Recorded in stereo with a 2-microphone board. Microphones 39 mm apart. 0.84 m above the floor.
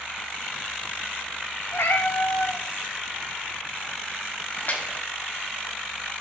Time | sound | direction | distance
1.7 | a cat meowing | 70° left (ahead or behind) | 0.8 m
4.5 | a splash | 50° left (ahead or behind) | 1.5 m